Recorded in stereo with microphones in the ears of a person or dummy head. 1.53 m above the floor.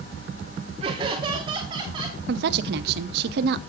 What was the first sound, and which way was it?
Laughter, 30° right (ahead or behind).